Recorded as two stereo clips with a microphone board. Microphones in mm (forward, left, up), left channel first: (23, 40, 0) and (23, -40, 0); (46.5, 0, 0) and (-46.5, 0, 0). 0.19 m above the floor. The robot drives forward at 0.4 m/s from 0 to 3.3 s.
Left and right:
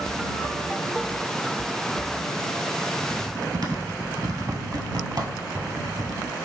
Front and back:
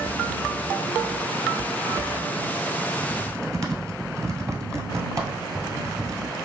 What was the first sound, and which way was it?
Typing on a keyboard, 125° right.